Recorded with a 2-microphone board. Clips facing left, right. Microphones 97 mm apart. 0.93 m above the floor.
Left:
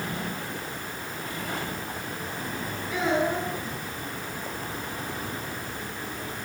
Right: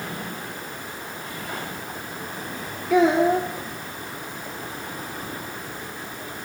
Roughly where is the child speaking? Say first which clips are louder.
Right 8 dB; right.